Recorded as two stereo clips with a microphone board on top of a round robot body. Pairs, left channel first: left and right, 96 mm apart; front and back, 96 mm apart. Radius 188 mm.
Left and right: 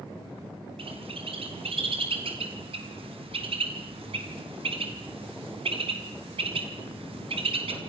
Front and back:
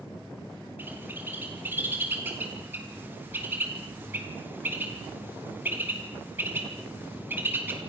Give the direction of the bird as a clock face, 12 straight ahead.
4 o'clock.